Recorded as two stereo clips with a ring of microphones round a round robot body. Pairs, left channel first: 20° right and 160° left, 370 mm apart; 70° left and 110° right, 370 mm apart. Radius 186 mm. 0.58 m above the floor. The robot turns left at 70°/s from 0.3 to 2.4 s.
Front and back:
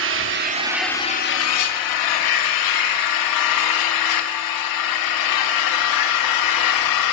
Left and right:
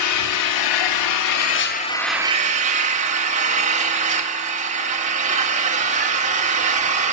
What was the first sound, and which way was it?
An engine running, 105° left.